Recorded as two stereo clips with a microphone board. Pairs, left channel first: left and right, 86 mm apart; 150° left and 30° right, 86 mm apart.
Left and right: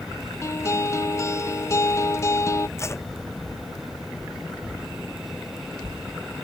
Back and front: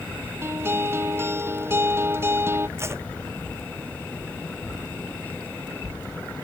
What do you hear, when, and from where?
0.4 s a guitar: 35° left
2.8 s tape being pulled: 30° left